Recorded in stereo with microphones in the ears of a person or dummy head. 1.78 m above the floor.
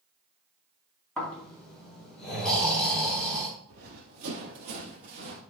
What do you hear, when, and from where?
1.2 s snoring: 15° left (ahead or behind), 4 m
3.7 s running footsteps: 45° right (ahead or behind), 2.5 m